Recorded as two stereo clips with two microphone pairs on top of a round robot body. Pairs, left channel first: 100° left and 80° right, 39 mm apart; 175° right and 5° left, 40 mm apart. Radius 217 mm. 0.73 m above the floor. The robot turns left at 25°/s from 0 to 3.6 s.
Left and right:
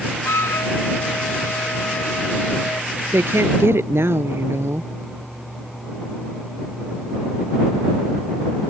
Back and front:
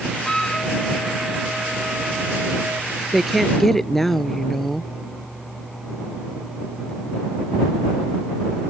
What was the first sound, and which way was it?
A flute, 110° left.